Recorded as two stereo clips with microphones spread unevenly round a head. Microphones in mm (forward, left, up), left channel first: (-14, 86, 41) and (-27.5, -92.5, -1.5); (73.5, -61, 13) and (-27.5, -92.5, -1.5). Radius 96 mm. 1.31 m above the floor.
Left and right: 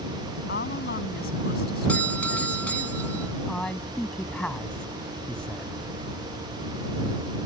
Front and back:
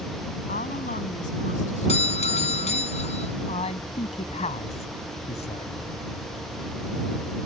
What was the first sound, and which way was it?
A woman speaking, 45° left.